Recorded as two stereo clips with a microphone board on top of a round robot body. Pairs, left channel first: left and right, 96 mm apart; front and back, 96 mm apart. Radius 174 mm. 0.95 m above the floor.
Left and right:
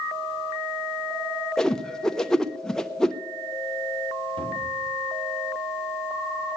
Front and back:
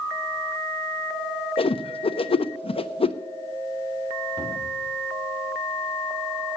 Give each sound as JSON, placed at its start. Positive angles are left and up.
{"t": 1.6, "sound": "a whoosh", "azimuth_deg": 5, "distance_m": 0.9}
{"t": 4.4, "sound": "a cupboard door", "azimuth_deg": -115, "distance_m": 3.5}